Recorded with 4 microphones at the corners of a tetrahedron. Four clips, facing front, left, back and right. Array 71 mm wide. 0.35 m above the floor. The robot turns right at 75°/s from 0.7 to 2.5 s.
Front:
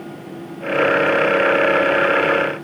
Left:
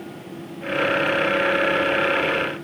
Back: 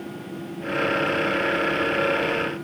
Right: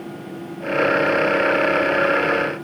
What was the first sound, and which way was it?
Only background noise.